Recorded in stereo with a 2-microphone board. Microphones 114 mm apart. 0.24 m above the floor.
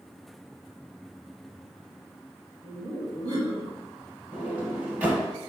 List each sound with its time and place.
2.6 s laughter: 40° right (ahead or behind), 1.2 m
4.3 s a sliding door: 10° right (ahead or behind), 0.9 m